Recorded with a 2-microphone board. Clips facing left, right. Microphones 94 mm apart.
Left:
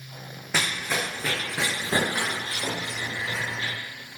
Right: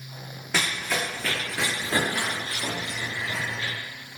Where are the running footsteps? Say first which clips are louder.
Even; 5° left (ahead or behind), 1.0 m; by 3.7 s 30° left (ahead or behind), 2.5 m.